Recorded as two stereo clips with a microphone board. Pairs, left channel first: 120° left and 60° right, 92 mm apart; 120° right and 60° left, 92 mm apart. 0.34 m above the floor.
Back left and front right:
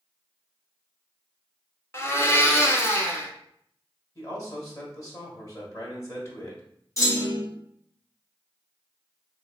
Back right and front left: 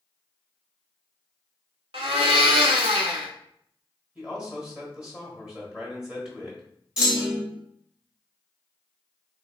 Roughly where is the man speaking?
Behind left.